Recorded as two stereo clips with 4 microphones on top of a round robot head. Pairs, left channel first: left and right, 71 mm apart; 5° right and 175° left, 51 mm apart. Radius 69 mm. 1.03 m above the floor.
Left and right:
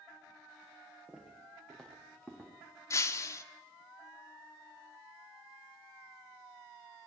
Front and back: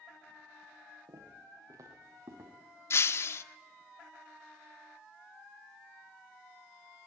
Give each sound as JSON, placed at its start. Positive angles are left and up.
{"t": 1.1, "sound": "footsteps", "azimuth_deg": 175, "distance_m": 8.0}
{"t": 2.9, "sound": "breaking glass", "azimuth_deg": 30, "distance_m": 1.2}